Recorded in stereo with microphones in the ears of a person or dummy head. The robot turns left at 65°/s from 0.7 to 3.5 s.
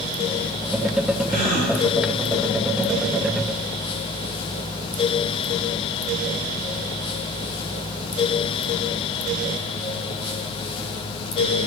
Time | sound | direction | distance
1.3 | a gasp | 55° left (ahead or behind) | 5.5 m